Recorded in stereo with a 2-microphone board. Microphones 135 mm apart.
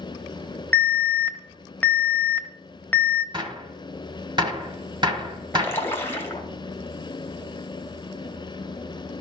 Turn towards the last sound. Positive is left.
turn(degrees=15)  # may be behind; listen again after turning